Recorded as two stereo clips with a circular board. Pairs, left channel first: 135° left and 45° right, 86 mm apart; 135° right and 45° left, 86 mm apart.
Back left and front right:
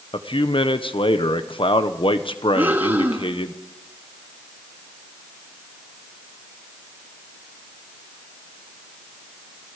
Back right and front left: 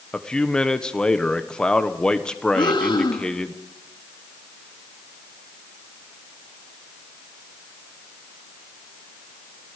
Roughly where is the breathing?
Right.